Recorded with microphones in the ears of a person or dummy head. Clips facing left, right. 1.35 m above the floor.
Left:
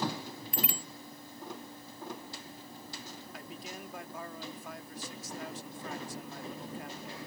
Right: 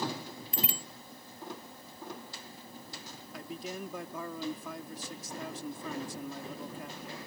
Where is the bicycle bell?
25° right (ahead or behind).